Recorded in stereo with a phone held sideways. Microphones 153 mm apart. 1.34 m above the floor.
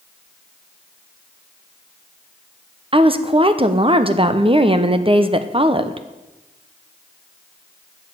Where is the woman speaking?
35° right (ahead or behind), 0.8 m.